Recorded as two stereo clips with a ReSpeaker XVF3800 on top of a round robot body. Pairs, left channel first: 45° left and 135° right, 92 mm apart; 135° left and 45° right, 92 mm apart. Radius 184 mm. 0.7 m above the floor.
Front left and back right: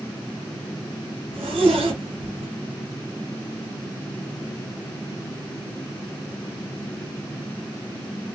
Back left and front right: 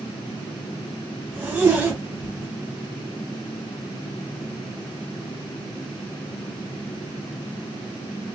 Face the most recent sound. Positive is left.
turn(degrees=-115)